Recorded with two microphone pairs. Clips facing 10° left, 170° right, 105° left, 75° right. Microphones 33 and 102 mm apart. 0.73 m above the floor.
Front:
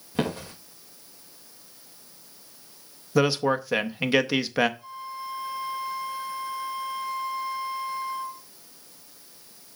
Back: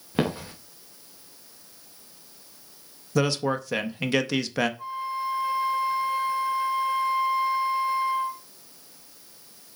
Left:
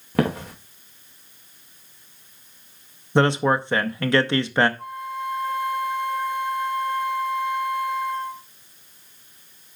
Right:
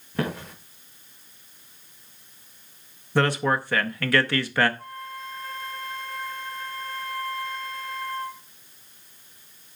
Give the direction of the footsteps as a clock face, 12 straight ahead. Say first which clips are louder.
Back 2 dB, left 6 dB; 8 o'clock.